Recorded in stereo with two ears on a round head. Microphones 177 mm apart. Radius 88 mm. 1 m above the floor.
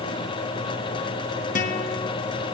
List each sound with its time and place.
1.6 s a guitar: 45° left (ahead or behind), 1.1 m